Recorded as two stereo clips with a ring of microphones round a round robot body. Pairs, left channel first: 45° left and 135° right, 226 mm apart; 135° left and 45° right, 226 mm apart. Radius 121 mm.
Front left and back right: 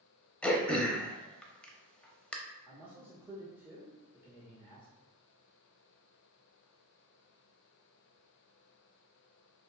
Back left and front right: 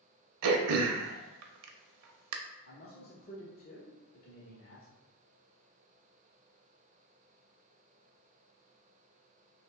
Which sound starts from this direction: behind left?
A man speaking, at 2.7 s.